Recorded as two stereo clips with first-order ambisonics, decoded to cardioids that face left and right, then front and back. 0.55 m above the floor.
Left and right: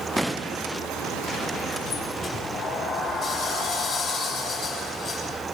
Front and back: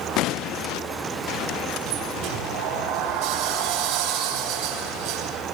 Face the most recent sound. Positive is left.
turn(degrees=155)